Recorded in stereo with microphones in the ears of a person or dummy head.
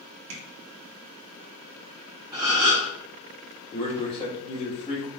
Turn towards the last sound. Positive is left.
turn(degrees=30)  # may be behind; listen again after turning